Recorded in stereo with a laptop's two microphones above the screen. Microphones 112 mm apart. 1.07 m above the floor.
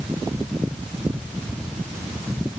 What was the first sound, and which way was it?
Only background noise.